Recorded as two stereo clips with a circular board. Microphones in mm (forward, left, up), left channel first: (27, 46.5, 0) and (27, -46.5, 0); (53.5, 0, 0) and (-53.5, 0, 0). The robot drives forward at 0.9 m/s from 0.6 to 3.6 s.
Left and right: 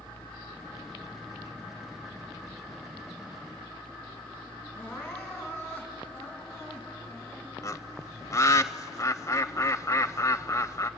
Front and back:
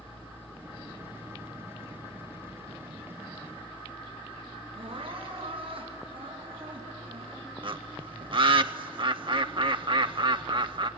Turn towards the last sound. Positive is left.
turn(degrees=145)